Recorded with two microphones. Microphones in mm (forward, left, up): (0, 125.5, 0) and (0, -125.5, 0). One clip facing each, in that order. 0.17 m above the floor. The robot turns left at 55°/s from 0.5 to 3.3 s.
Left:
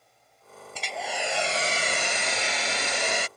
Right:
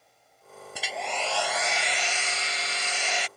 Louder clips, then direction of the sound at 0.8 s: Even; 170° right.